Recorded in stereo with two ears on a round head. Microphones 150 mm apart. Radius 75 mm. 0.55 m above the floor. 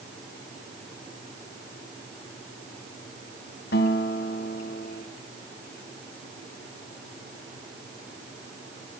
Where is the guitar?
65° left (ahead or behind), 3.5 m.